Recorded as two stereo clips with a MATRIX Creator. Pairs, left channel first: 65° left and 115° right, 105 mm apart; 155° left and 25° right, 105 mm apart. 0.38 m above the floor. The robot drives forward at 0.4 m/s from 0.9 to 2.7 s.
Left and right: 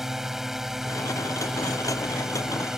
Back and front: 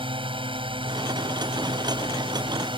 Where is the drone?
25° right; by 2.8 s 30° right.